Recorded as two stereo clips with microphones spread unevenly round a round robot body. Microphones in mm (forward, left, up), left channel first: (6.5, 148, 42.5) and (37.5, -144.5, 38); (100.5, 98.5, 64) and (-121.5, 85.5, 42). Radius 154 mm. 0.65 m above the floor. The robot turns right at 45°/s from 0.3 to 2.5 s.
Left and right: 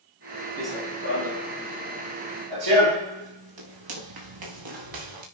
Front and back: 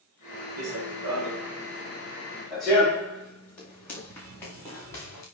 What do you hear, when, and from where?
0.6 s running footsteps: straight behind, 9 m; by 5.2 s 75° right, 8 m